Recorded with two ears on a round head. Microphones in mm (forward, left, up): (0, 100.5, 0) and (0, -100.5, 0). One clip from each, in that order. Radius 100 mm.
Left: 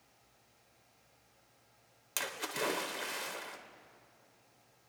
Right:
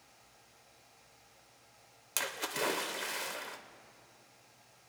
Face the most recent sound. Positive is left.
turn(degrees=-5)  # may be behind; listen again after turning